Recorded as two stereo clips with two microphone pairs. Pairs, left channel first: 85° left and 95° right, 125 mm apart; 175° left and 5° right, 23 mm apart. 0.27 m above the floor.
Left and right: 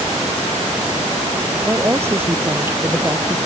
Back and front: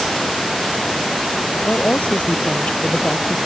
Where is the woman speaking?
165° right.